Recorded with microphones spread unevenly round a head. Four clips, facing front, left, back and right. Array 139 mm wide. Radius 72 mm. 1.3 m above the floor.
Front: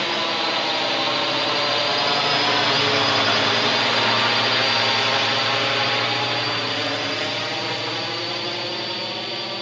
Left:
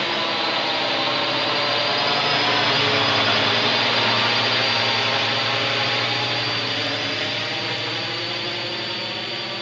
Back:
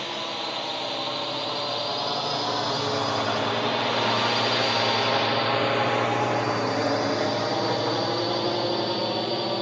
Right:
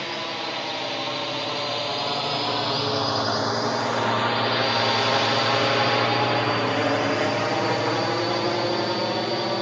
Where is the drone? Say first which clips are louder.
Left 6 dB, front 7 dB; 35° left; by 9.6 s 130° right.